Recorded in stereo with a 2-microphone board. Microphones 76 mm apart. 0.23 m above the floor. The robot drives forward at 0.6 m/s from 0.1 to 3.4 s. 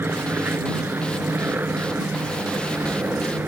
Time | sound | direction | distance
0.0 | an aircraft | 30° right (ahead or behind) | ?